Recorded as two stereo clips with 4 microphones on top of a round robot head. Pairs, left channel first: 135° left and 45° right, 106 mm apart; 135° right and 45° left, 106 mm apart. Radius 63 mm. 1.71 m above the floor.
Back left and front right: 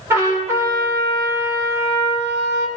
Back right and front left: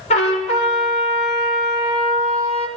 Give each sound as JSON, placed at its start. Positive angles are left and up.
{"t": 0.1, "sound": "a trumpet", "azimuth_deg": -110, "distance_m": 5.0}